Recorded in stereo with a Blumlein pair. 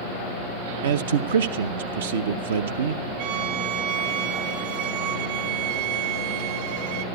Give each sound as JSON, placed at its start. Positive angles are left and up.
{"t": 0.8, "sound": "a man speaking", "azimuth_deg": -60, "distance_m": 0.6}
{"t": 3.2, "sound": "a violin", "azimuth_deg": -55, "distance_m": 1.0}